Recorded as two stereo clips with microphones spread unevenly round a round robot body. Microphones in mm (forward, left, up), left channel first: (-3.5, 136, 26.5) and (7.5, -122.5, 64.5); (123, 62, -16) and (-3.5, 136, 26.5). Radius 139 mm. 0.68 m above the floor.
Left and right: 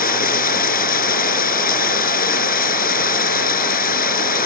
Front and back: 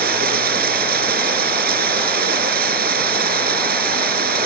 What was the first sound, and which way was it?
Running water, 150° left.